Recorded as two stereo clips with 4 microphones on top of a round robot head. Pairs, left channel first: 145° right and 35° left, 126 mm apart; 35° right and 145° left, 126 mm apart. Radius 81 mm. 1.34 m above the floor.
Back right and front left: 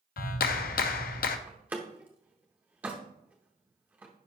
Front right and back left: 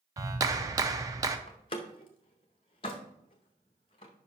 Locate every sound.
0.2 s a clap: 150° right, 0.6 m
1.5 s a door slam: 35° right, 0.6 m